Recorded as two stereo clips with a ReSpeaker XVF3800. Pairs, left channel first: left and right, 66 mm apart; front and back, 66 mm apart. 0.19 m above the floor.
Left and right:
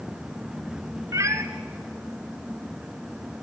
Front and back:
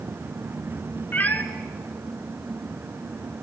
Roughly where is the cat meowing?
Ahead right.